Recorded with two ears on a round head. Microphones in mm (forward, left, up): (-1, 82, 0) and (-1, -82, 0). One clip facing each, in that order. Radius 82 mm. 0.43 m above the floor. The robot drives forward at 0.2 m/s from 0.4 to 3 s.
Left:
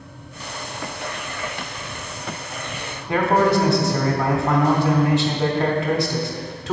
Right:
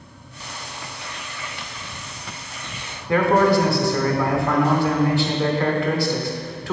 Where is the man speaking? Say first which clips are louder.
Right 1 dB; 20° left (ahead or behind), 0.9 m.